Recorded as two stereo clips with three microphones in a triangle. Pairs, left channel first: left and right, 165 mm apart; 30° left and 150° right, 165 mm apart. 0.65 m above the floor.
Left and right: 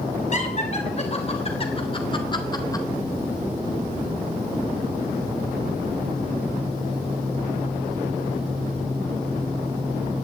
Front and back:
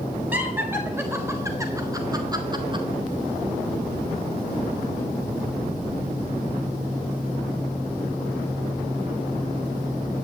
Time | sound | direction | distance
0.3 | laughter | 135° left | 4 m